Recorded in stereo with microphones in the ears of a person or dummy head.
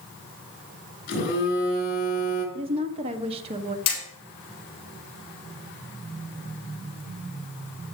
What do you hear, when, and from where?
1.1 s a phone buzzing: 50° left (ahead or behind), 8 m
2.5 s a woman speaking: 30° right (ahead or behind), 1.4 m
3.9 s hammering: 25° left (ahead or behind), 8.5 m